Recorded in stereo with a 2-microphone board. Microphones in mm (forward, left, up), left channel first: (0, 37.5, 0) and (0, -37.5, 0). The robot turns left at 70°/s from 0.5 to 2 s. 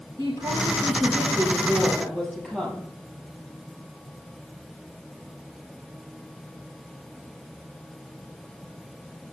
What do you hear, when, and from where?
0.2 s a woman speaking: 80° right, 3.5 m; by 2.9 s 175° left, 3.5 m